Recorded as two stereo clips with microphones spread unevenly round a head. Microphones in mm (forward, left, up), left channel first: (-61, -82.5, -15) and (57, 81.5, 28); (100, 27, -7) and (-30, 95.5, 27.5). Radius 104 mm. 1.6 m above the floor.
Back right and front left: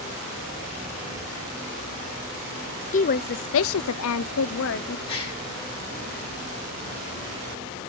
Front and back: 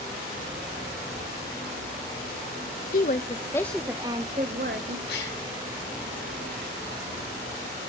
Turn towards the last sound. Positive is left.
turn(degrees=-60)